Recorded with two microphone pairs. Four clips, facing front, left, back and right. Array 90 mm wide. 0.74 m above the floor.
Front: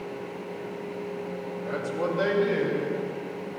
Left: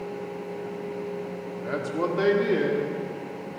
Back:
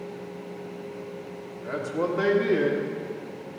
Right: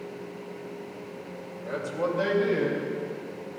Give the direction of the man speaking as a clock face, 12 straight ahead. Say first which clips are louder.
Left 2 dB, back 2 dB; 9 o'clock.